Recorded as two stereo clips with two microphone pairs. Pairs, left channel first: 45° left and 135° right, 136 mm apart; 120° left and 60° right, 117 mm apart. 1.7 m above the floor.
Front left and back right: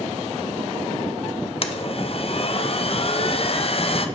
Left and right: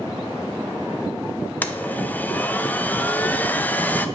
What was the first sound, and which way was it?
A blender, 45° left.